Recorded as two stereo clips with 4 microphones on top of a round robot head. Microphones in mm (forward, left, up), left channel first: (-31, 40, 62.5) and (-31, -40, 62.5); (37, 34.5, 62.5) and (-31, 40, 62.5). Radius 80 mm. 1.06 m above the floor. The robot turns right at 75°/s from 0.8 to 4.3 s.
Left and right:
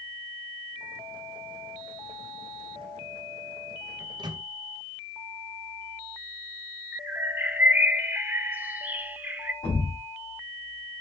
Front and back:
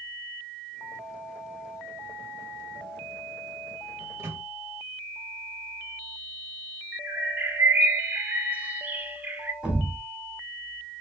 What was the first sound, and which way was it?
A microwave, 140° right.